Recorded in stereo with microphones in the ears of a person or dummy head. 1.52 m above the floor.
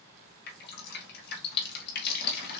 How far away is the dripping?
About 1.7 m.